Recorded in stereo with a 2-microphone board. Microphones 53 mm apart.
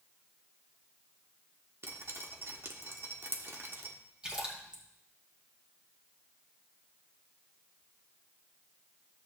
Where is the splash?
20° right (ahead or behind), 2 m.